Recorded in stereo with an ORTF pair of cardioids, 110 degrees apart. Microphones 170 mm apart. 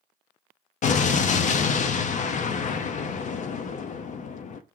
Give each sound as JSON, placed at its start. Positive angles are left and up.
{"t": 0.8, "sound": "an explosion", "azimuth_deg": 45, "distance_m": 0.5}